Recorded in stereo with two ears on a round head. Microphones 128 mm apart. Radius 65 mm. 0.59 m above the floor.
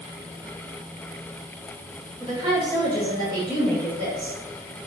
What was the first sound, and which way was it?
A woman speaking, 30° right (ahead or behind).